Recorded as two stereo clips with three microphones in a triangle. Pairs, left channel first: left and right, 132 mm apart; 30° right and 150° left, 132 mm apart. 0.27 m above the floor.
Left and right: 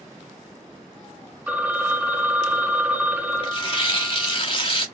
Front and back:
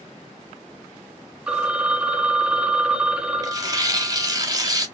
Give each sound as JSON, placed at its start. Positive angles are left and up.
{"t": 1.5, "sound": "a phone ringing", "azimuth_deg": -140, "distance_m": 0.8}
{"t": 3.4, "sound": "tearing paper", "azimuth_deg": 105, "distance_m": 1.0}